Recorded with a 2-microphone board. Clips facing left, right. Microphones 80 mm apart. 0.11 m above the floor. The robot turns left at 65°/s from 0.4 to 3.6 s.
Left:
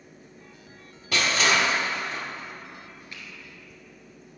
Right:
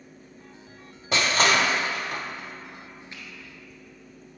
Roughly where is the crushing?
Right.